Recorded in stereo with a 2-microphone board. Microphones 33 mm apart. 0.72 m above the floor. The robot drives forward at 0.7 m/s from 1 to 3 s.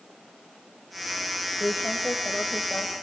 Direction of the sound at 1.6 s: 75° left (ahead or behind).